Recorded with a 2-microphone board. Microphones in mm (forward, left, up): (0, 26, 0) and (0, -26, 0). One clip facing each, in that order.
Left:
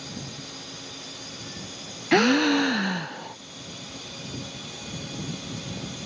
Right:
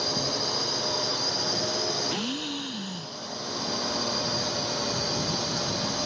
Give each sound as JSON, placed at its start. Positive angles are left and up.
{"t": 0.0, "sound": "a drone", "side_deg": -70}
{"t": 2.1, "sound": "a gasp", "side_deg": 80}